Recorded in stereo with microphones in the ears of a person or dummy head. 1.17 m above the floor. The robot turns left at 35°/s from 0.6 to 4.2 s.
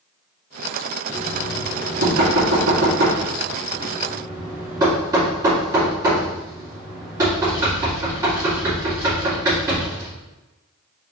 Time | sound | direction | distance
1.1 | knocking | 55° right (ahead or behind) | 2.5 m